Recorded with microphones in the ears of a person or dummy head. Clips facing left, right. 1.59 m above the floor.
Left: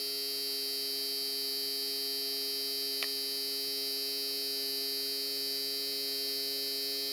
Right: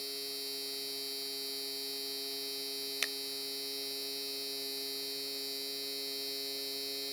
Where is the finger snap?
25° right (ahead or behind).